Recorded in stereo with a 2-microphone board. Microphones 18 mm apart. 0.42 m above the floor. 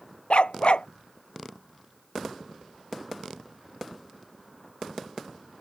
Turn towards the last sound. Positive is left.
turn(degrees=70)  # may be behind; listen again after turning